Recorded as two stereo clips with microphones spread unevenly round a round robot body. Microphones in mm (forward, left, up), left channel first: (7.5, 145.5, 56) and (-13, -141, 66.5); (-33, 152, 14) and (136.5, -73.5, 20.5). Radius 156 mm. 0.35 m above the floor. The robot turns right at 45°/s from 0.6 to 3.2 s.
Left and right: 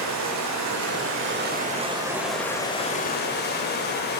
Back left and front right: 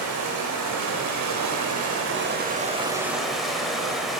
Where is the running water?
80° right, 0.8 m; by 4.2 s 35° left, 0.8 m.